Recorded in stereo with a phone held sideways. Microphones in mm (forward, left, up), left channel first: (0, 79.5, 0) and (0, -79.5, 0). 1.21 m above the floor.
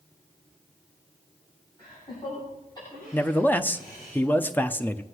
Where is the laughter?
30° left (ahead or behind), 8.5 m; by 4.1 s 20° left (ahead or behind), 8 m.